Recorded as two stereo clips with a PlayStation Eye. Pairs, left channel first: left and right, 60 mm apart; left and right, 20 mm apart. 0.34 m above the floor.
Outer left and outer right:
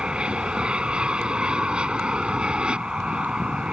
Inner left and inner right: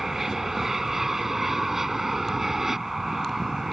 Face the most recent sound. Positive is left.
turn(degrees=-15)  # may be behind; listen again after turning